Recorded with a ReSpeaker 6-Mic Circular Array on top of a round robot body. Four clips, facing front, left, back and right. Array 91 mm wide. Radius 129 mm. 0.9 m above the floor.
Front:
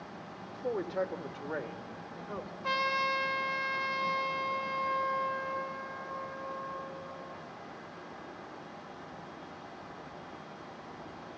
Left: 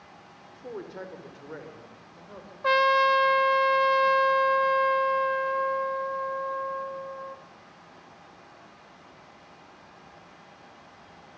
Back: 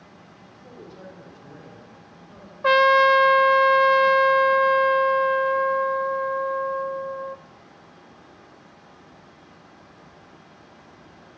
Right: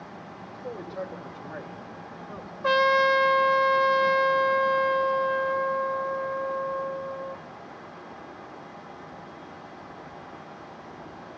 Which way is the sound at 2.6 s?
175° right.